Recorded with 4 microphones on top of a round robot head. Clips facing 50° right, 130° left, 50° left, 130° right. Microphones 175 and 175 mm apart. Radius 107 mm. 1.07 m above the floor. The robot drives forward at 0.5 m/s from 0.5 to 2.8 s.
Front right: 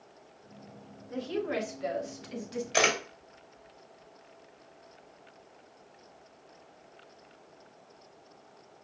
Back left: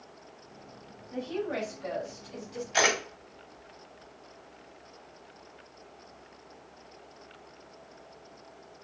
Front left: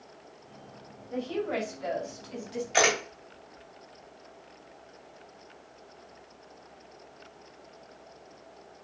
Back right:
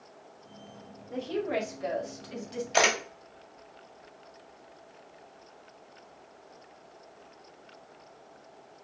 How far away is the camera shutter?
About 3 m.